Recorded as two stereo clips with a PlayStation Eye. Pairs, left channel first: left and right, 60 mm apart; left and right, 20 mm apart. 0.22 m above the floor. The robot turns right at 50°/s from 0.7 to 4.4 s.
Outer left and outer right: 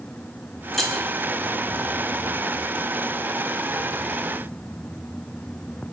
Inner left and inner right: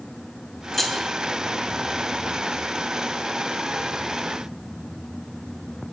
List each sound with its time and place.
0.7 s keys jangling: 5° left (ahead or behind), 0.7 m; by 1.1 s 10° left (ahead or behind), 0.7 m